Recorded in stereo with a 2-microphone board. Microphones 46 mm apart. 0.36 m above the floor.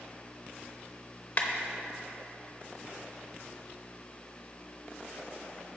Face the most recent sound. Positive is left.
turn(degrees=35)  # may be behind; listen again after turning